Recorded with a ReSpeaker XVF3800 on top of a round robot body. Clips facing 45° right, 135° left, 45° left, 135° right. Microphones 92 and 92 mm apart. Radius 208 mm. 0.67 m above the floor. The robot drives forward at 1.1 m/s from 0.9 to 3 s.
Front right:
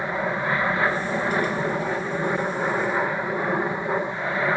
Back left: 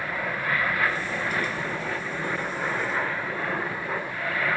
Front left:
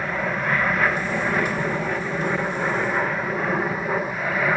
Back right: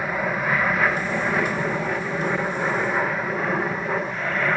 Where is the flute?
No flute in this recording.